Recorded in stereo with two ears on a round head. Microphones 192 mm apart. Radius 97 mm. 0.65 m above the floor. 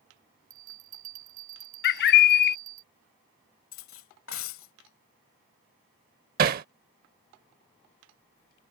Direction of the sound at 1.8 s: 50° left (ahead or behind).